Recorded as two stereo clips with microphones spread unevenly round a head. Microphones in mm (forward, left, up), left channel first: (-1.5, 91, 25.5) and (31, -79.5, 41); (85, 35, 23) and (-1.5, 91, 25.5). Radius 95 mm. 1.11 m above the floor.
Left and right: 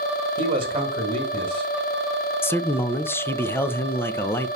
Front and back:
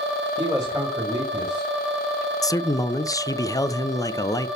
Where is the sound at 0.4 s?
135° right, 1.5 m.